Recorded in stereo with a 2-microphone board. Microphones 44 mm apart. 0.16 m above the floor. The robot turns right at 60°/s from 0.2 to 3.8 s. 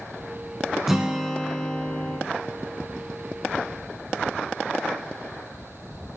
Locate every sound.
0.9 s a guitar: 15° right, 1.2 m; by 2.2 s 60° left, 1.2 m